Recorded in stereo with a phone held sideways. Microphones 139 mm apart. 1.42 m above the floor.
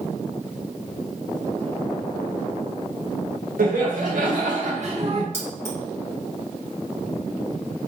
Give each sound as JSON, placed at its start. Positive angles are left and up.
{"t": 3.6, "sound": "laughter", "side_deg": -85, "distance_m": 1.6}
{"t": 5.3, "sound": "keys jangling", "side_deg": -20, "distance_m": 1.5}